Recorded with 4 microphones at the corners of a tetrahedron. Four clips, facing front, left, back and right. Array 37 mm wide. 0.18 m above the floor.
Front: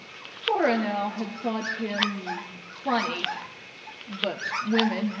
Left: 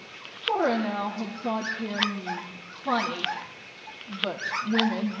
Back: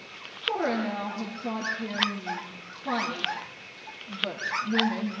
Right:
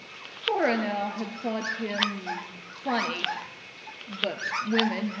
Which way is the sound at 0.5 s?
50° right.